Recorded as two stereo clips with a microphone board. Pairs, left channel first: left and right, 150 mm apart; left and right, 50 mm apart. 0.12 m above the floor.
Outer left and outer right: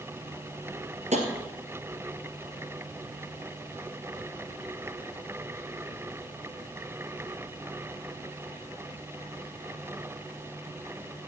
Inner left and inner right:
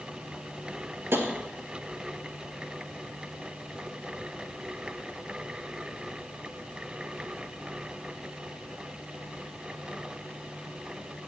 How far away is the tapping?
About 2 m.